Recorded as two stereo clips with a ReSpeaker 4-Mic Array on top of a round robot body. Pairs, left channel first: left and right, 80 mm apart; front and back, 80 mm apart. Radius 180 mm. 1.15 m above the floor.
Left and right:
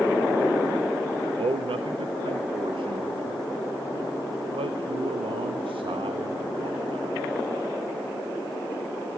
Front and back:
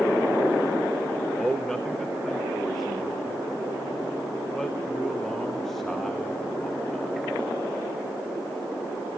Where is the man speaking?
85° right, 0.9 m.